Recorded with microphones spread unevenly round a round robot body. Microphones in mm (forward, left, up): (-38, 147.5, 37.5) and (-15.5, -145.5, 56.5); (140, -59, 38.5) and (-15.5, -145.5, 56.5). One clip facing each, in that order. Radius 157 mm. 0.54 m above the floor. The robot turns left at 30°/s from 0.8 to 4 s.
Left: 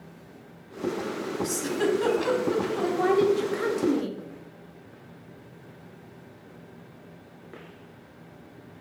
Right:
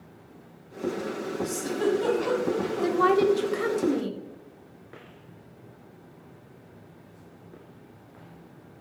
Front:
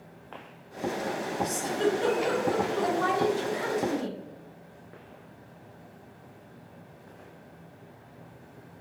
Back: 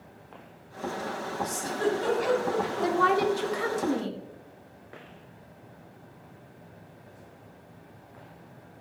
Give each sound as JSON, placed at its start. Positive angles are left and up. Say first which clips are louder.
{"t": 1.4, "sound": "a giggle", "louder": "even, front 1 dB", "azimuth_deg": 105, "distance_m": 1.7}
{"t": 2.8, "sound": "a woman speaking", "louder": "right 1 dB, back 4 dB", "azimuth_deg": -145, "distance_m": 1.1}